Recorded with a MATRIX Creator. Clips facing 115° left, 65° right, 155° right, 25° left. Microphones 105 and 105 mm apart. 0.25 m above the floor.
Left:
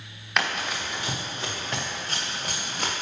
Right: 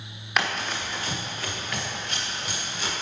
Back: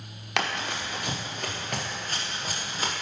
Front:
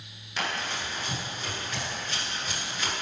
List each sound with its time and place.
0.4 s running footsteps: 155° right, 1.9 m; by 2.9 s 150° left, 2.5 m